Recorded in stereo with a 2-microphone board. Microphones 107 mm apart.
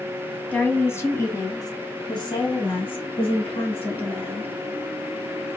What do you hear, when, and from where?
0.5 s a woman speaking: 15° left (ahead or behind), 1.2 m; by 4.5 s 60° left (ahead or behind), 2 m